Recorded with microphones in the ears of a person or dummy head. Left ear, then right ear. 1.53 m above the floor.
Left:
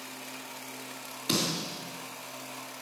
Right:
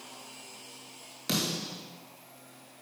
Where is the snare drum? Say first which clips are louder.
Left 2 dB; 25° right (ahead or behind), 2.5 m.